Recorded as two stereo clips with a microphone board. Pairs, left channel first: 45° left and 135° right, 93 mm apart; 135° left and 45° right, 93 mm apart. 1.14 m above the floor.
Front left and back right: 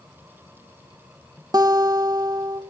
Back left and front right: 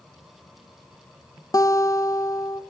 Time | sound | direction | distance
1.5 | a guitar | straight behind | 1.3 m